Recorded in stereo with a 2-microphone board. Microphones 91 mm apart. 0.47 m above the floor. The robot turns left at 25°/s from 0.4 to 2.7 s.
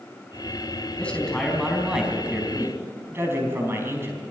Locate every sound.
1.0 s a man speaking: 15° left, 4 m; by 4.2 s 30° right, 4 m